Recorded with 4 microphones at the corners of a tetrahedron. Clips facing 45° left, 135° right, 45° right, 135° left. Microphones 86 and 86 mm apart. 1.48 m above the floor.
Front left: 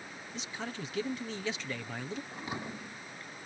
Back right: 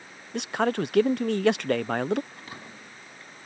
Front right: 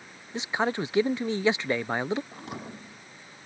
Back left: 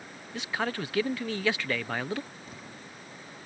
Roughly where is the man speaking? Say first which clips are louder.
Back right 16 dB, front right 4 dB; behind right.